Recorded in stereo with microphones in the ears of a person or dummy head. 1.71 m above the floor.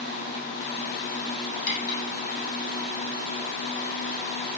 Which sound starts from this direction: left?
Cutlery clinking, at 1.7 s.